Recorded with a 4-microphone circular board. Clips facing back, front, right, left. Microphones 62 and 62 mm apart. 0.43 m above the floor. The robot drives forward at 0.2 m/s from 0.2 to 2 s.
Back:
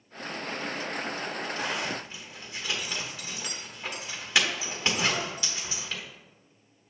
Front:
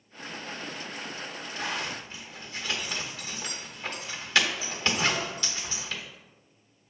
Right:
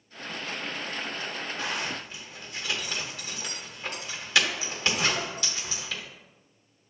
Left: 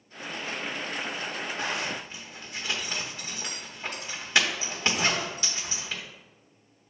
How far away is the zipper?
About 1.1 m.